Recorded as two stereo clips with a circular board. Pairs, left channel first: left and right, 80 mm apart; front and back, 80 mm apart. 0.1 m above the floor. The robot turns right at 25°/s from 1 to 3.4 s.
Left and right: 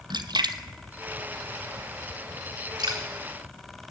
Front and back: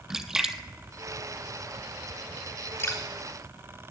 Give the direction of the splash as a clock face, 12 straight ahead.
3 o'clock.